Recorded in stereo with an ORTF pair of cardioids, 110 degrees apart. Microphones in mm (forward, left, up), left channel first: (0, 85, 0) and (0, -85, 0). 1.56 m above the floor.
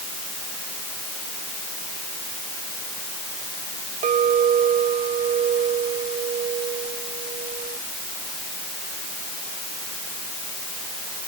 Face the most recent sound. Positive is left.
turn(degrees=-50)